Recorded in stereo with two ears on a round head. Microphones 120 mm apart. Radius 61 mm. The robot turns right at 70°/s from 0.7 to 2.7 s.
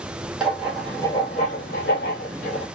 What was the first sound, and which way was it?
Writing, 5° right.